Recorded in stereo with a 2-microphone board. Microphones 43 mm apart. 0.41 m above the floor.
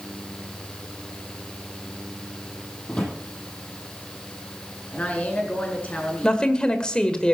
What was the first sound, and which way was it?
A drawer, 25° left (ahead or behind).